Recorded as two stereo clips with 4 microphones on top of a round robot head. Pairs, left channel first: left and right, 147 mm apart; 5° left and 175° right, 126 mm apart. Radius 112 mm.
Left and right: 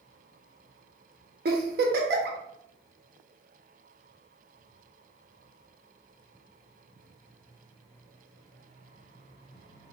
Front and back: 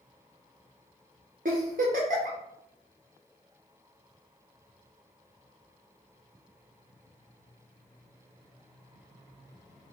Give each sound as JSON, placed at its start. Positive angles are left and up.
{"t": 1.4, "sound": "a giggle", "azimuth_deg": -125, "distance_m": 0.6}